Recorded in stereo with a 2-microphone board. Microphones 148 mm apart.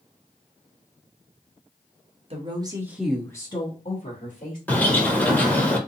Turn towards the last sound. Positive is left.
turn(degrees=10)  # may be behind; listen again after turning